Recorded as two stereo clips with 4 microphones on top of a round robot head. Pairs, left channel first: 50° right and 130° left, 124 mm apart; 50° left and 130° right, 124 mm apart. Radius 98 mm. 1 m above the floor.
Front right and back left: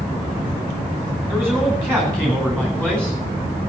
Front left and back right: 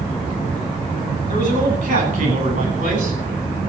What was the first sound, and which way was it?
A man speaking, 135° right.